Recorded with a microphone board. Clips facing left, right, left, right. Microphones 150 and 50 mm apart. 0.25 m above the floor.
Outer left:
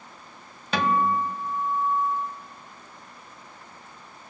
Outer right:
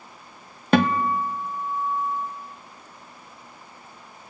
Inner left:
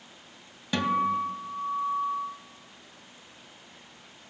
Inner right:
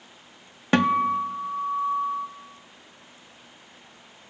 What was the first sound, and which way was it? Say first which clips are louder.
A guitar: outer right 4 dB, inner right 5 dB; 50° right (ahead or behind).